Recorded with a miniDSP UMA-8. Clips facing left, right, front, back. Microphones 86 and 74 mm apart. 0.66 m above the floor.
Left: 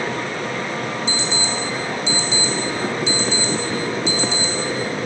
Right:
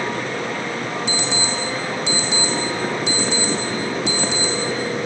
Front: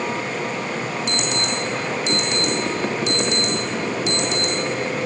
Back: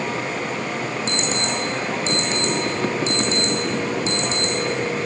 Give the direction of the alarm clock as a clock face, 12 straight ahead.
4 o'clock.